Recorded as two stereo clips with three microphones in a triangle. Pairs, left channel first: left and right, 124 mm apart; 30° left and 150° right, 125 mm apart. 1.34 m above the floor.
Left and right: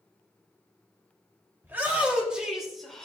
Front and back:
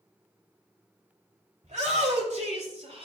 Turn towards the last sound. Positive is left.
turn(degrees=175)